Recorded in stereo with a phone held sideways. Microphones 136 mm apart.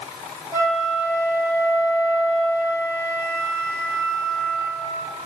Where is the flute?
20° right (ahead or behind), 1.2 m.